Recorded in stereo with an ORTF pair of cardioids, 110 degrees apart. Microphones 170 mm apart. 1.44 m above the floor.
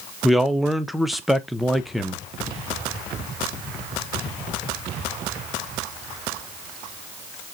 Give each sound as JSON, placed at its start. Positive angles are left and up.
{"t": 0.2, "sound": "a man speaking", "azimuth_deg": 0, "distance_m": 0.9}